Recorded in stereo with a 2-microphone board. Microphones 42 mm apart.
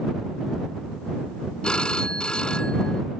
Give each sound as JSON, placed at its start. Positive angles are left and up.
{"t": 1.6, "sound": "a phone ringing", "side_deg": 25}